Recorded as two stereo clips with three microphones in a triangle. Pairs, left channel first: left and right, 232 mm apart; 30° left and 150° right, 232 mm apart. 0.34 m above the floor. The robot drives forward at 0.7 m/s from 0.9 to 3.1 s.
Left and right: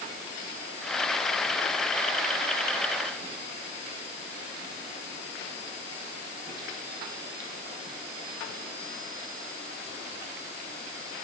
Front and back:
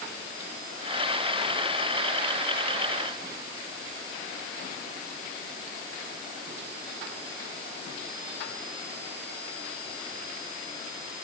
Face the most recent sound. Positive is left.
No sound to turn to.